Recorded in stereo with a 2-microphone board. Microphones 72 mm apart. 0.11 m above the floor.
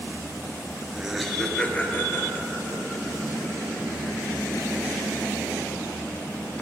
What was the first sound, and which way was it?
Laughter, 10° right (ahead or behind).